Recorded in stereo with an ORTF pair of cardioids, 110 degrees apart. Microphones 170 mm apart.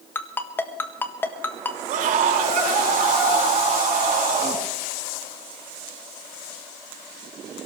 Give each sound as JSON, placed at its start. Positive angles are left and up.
{"t": 0.1, "sound": "a ringtone", "azimuth_deg": 15, "distance_m": 1.5}
{"t": 1.9, "sound": "a scream", "azimuth_deg": -55, "distance_m": 5.0}